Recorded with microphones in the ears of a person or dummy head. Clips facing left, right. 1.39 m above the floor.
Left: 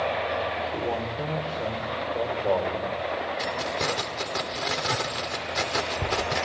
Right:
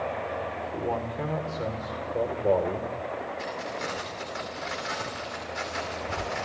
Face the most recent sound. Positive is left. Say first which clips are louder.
# left 4 dB
turn(degrees=70)  # may be behind; listen again after turning